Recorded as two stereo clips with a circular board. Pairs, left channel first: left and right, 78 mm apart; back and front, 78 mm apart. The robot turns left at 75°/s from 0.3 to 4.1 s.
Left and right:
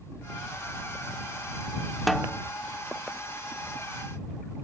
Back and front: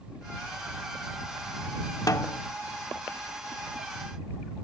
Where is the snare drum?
Straight behind; by 2.4 s 155° left.